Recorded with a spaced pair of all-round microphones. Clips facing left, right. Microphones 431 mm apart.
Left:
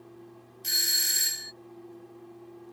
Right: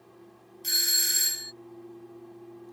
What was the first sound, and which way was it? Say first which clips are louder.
A doorbell: right 4 dB; 10° left (ahead or behind).